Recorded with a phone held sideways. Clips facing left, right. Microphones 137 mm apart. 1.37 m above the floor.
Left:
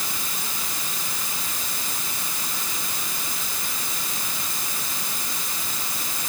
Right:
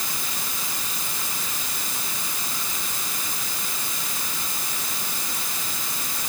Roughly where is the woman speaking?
I don't hear a woman speaking.